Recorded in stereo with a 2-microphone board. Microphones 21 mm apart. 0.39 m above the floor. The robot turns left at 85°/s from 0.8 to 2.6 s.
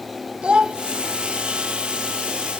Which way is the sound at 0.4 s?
55° right (ahead or behind).